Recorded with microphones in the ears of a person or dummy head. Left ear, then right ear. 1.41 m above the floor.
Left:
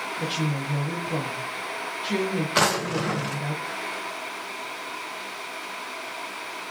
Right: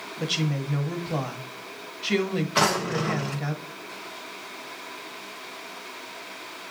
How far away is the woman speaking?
About 1.1 m.